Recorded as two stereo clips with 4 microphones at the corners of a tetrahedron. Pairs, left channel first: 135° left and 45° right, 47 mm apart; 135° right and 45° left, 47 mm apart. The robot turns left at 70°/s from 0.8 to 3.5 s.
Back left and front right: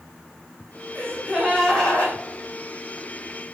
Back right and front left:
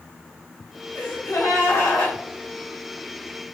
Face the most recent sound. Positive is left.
turn(degrees=85)